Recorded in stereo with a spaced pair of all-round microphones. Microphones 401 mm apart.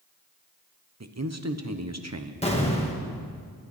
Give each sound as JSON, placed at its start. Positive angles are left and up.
{"t": 1.0, "sound": "a man speaking", "side_deg": -40, "distance_m": 1.0}
{"t": 2.4, "sound": "an explosion", "side_deg": 15, "distance_m": 2.0}